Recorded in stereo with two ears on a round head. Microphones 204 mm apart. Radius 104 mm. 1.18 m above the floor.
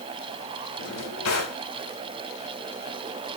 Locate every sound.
0.8 s a drawer: 80° left, 3.5 m